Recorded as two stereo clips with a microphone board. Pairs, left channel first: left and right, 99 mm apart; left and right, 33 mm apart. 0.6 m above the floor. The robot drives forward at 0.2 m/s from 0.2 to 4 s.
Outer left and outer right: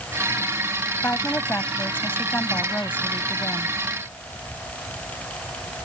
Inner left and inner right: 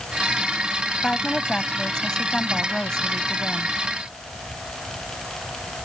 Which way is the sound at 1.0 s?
20° left (ahead or behind).